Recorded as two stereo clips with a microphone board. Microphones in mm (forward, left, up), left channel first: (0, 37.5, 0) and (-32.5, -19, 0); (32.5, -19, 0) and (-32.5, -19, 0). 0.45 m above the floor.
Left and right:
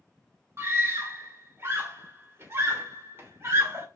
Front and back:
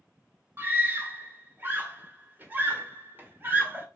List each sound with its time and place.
0.6 s a scream: 140° right, 1.4 m